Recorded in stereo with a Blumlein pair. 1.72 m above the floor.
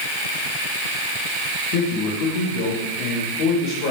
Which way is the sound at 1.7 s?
45° left.